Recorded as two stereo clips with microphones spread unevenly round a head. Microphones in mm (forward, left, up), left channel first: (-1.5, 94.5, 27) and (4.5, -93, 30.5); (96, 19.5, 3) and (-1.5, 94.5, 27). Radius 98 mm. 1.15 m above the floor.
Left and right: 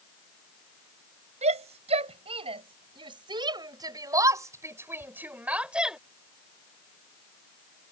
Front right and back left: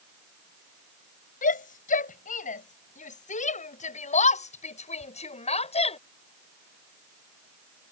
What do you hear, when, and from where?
1.4 s a shout: 30° right; by 6.0 s straight ahead